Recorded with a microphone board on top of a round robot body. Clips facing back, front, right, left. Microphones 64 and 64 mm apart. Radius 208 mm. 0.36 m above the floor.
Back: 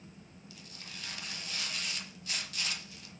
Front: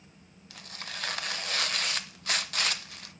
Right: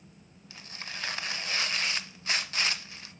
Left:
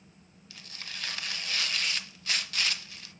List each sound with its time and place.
0.5 s tearing paper: 25° right, 0.6 m